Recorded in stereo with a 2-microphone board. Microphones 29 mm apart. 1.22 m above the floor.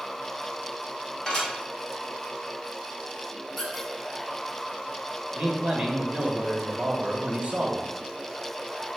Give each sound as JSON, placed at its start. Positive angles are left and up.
{"t": 1.3, "sound": "dishes clattering", "side_deg": 25, "distance_m": 1.5}
{"t": 3.6, "sound": "a squeak", "side_deg": 5, "distance_m": 2.0}
{"t": 5.3, "sound": "a man speaking", "side_deg": -45, "distance_m": 0.9}